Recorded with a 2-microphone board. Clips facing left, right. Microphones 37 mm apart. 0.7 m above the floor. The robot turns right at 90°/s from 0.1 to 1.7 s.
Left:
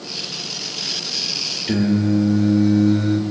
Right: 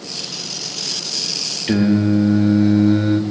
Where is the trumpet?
No trumpet in this recording.